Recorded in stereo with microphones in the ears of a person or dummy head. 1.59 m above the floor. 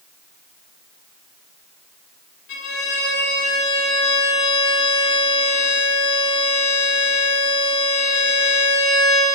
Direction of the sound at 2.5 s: 65° left (ahead or behind).